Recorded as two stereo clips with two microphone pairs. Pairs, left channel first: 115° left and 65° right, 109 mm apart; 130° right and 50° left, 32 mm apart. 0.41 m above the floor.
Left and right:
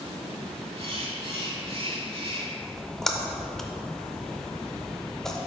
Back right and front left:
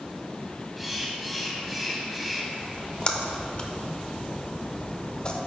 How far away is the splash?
About 0.6 m.